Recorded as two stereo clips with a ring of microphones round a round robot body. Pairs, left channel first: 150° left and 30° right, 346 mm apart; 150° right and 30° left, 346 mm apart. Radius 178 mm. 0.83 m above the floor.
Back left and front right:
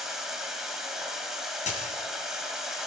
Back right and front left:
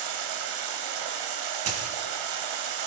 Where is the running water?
60° left, 2.0 m.